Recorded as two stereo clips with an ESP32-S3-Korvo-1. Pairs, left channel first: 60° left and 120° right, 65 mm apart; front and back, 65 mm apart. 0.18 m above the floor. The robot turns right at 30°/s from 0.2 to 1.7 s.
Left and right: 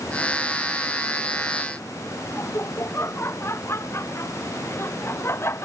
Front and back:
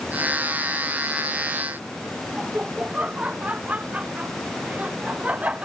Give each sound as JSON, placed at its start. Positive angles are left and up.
{"t": 2.4, "sound": "laughter", "azimuth_deg": 110}